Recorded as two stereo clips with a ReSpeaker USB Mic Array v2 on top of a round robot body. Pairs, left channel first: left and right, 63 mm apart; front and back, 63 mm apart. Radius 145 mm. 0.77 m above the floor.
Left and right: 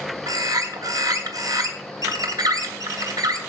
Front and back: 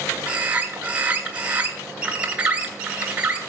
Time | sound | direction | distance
0.3 | a bird | 110° right | 1.6 m